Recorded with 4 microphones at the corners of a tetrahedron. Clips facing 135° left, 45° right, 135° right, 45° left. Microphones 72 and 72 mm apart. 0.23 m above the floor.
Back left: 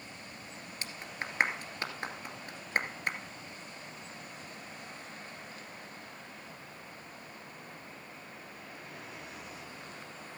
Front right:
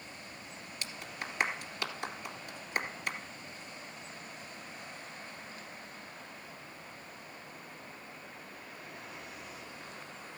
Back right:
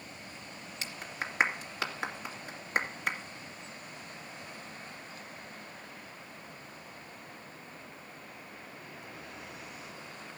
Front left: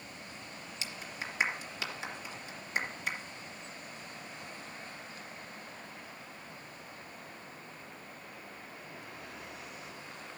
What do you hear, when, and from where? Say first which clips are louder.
0.8 s a clap: back left 1 dB, back right 3 dB; 175° right, 2.5 m